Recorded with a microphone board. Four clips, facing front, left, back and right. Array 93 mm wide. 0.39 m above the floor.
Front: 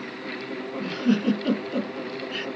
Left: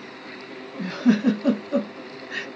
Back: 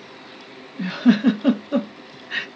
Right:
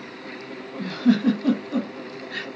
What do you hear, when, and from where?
0.8 s a giggle: 165° left, 0.9 m